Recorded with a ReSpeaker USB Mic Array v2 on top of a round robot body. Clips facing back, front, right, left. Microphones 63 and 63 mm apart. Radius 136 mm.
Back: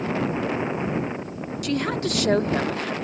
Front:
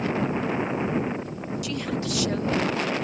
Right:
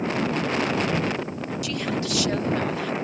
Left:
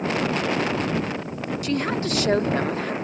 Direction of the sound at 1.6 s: 140° left.